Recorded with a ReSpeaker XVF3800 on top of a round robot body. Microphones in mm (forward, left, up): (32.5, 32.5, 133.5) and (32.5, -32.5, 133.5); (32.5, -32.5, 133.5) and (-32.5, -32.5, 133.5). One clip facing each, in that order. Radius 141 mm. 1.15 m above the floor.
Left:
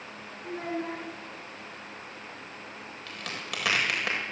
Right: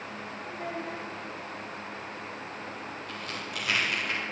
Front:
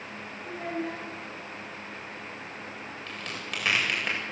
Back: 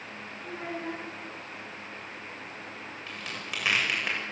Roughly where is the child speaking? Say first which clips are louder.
Left 4 dB, front 3 dB; behind left.